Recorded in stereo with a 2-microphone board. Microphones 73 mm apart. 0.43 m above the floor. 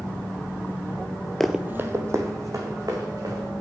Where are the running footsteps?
5° left (ahead or behind), 0.6 m; by 3.5 s 55° right (ahead or behind), 3.5 m.